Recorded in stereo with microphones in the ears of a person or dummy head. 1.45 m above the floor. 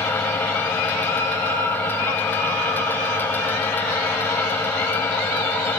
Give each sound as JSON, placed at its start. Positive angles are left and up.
{"t": 0.0, "sound": "a fan", "side_deg": 10}